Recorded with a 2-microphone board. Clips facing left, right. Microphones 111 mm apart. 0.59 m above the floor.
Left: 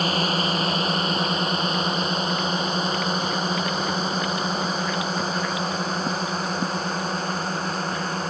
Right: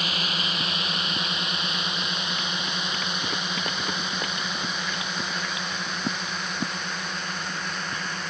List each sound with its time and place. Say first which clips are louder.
0.0 s a drone: left 8 dB; 35° left (ahead or behind)